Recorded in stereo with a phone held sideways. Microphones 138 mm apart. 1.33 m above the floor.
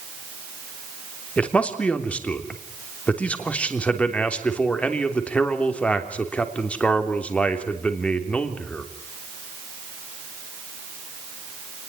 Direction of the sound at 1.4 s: 10° left (ahead or behind).